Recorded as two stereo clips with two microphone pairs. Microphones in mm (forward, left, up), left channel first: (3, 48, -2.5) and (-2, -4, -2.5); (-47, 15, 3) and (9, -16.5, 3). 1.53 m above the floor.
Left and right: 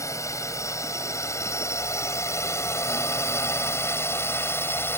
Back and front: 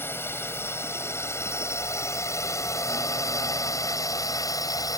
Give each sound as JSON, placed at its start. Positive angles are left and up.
{"t": 0.0, "sound": "a drone", "azimuth_deg": 95}